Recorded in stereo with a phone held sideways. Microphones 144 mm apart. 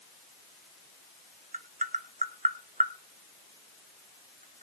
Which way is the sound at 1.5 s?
65° right (ahead or behind).